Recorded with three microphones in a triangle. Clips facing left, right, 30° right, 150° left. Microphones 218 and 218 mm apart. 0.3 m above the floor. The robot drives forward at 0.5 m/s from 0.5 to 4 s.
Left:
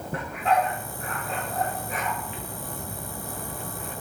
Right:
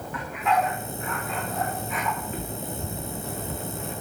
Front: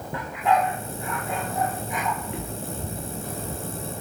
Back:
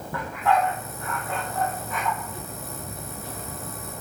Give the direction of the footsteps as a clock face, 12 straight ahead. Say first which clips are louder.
Right 4 dB, front 4 dB; 1 o'clock.